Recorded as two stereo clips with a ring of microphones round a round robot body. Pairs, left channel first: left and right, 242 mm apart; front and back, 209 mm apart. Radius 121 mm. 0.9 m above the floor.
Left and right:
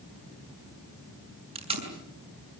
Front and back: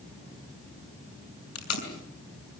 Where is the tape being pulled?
25° right, 6.5 m.